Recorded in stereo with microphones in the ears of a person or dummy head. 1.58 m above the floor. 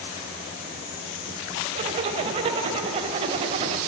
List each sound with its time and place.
1.8 s a zipper: 35° right (ahead or behind), 2.5 m